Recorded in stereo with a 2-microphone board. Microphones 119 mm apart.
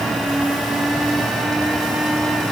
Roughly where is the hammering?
No hammering in this recording.